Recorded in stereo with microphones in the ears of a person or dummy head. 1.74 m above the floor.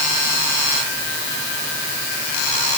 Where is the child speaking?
No child speaking in this recording.